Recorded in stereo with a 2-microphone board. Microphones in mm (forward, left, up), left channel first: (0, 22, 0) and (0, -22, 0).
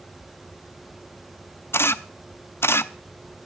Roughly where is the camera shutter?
Left.